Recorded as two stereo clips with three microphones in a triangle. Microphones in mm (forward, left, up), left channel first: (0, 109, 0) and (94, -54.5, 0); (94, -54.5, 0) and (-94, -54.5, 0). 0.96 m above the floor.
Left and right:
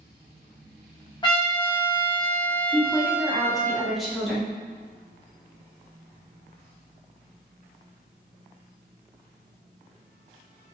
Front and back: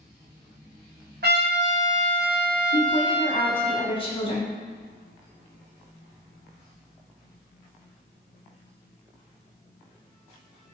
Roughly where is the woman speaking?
Ahead left.